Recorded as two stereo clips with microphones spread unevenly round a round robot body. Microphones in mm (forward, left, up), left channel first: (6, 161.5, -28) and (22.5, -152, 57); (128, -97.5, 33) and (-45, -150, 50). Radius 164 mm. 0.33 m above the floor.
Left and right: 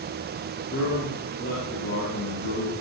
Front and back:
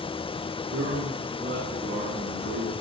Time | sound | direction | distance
0.7 | a man speaking | 150° left | 5.5 m